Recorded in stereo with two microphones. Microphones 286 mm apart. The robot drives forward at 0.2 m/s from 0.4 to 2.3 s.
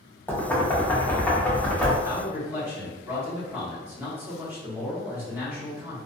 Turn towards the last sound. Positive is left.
turn(degrees=-10)  # may be behind; listen again after turning